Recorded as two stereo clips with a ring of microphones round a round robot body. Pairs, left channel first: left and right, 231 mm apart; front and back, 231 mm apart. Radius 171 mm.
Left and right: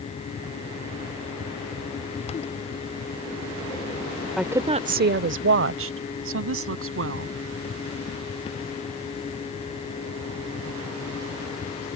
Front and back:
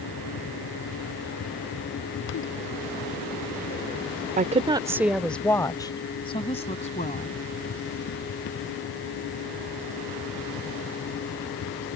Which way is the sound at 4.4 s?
Straight behind.